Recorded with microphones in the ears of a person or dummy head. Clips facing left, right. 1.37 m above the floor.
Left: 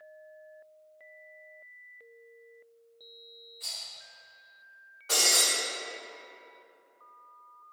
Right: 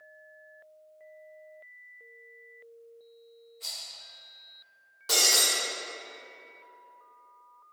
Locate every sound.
3.6 s a rattle: 5° left (ahead or behind), 1.0 m
5.1 s breaking glass: 50° right (ahead or behind), 1.3 m